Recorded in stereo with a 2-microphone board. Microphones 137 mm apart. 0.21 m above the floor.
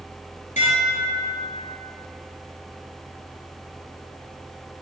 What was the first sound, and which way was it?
Dishes clattering, 70° left (ahead or behind).